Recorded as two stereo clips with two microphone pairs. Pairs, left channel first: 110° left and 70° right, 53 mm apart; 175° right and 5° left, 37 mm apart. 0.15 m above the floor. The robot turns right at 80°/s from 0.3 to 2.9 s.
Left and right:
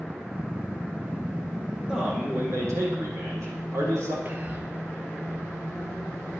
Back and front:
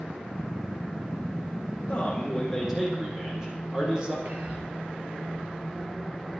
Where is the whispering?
25° right, 3 m.